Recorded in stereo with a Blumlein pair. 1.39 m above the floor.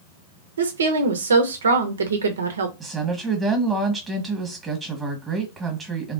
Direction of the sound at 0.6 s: 70° right.